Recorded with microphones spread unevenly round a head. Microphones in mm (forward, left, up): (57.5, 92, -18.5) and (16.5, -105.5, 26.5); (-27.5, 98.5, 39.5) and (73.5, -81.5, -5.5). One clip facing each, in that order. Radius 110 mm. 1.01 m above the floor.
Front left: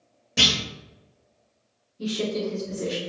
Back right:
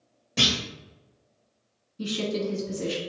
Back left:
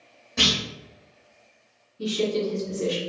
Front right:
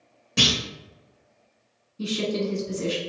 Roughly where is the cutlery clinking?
I don't hear cutlery clinking.